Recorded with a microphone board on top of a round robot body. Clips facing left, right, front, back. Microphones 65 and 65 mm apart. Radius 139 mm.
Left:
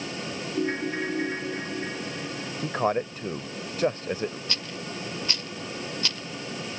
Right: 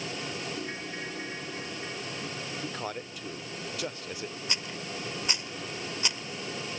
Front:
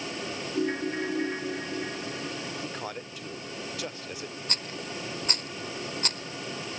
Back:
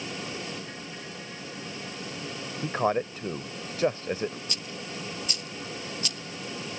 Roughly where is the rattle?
Ahead.